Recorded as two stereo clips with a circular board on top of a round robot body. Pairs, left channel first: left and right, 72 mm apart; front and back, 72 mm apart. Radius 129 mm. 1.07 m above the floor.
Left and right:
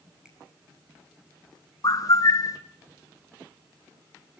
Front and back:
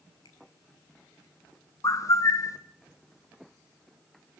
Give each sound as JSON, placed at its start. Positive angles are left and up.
{"t": 0.2, "sound": "a finger snap", "azimuth_deg": -15, "distance_m": 8.0}
{"t": 1.8, "sound": "a bird", "azimuth_deg": 45, "distance_m": 1.1}